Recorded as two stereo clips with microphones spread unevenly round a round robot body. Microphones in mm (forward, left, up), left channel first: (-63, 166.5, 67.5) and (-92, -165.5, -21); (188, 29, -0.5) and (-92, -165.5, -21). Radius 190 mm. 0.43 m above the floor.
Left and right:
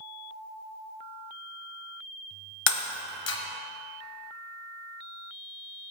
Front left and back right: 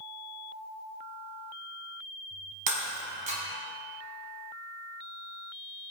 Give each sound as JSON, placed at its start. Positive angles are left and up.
{"t": 2.7, "sound": "breaking glass", "azimuth_deg": 145, "distance_m": 1.2}